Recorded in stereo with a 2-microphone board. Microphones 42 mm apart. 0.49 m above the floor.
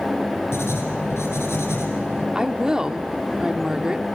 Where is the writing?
85° left, 5 m.